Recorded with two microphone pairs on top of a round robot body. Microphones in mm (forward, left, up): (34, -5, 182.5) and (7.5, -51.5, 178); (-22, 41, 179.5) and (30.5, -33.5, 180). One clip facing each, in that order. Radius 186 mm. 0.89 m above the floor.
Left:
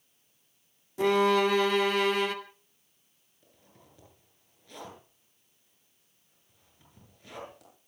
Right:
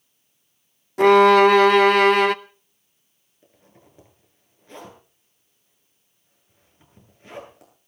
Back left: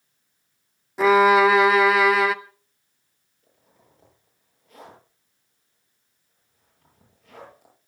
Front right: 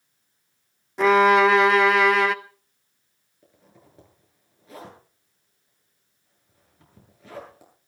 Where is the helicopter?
No helicopter in this recording.